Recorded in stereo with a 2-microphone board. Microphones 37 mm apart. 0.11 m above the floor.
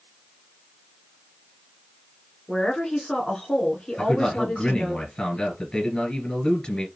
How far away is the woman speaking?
About 1.5 m.